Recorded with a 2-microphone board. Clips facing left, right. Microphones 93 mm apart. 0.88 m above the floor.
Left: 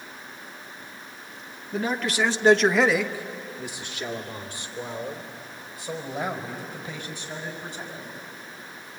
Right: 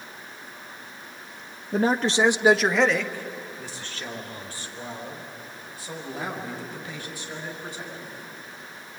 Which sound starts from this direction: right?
A man speaking, at 1.7 s.